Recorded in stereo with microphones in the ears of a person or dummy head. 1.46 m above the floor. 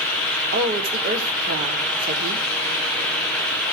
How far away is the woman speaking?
About 3 m.